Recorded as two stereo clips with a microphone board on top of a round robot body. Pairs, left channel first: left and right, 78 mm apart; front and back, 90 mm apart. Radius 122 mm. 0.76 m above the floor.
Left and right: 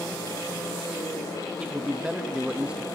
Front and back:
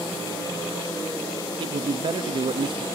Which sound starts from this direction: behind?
A man speaking, at 1.6 s.